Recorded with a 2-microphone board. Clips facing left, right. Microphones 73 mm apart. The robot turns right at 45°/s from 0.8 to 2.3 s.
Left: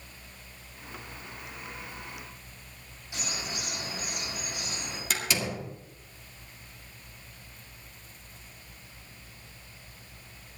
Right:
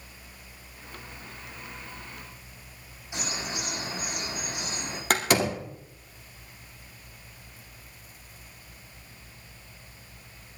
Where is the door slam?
60° right (ahead or behind), 2.0 m.